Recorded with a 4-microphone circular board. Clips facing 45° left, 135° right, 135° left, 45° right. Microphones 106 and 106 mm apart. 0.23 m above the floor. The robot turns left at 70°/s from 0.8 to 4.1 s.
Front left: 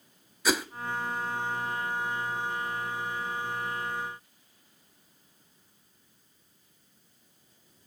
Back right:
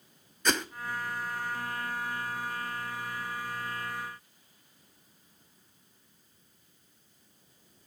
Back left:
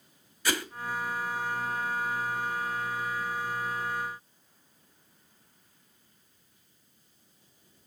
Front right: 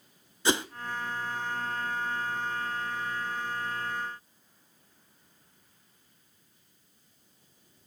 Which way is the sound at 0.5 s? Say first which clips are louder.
Front left 2 dB, front right 4 dB; 30° right.